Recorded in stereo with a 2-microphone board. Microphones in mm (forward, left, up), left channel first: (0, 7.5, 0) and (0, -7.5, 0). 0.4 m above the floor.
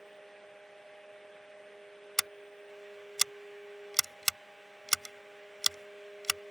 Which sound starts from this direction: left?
Scissors, at 2.2 s.